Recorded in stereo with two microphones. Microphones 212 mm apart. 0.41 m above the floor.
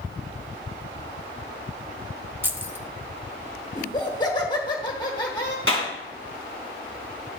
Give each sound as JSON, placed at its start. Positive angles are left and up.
{"t": 2.4, "sound": "keys jangling", "side_deg": -10, "distance_m": 0.6}
{"t": 3.8, "sound": "laughter", "side_deg": 20, "distance_m": 1.2}
{"t": 5.7, "sound": "a clap", "side_deg": -80, "distance_m": 2.5}